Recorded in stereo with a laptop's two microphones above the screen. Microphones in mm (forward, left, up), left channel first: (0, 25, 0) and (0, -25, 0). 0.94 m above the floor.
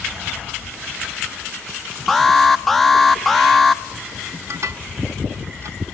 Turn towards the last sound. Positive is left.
turn(degrees=-70)  # may be behind; listen again after turning